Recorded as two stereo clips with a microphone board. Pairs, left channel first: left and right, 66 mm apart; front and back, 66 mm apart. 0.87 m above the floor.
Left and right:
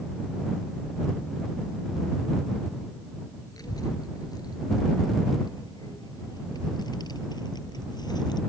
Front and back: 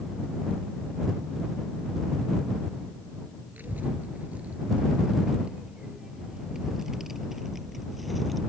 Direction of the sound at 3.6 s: 115° left.